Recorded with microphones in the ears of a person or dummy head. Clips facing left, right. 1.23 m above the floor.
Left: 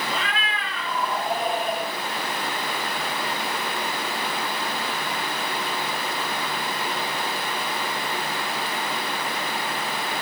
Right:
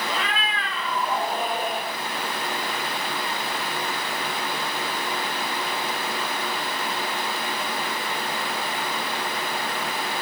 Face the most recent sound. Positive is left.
turn(degrees=-60)  # may be behind; listen again after turning